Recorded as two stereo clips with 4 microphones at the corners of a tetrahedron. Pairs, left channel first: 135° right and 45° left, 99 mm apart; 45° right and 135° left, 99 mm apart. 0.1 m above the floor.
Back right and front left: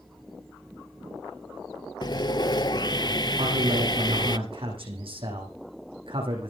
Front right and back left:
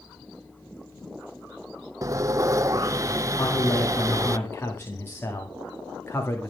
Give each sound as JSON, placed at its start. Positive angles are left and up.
{"t": 2.0, "sound": "sawing", "azimuth_deg": -175, "distance_m": 0.6}
{"t": 3.4, "sound": "a man speaking", "azimuth_deg": 20, "distance_m": 8.0}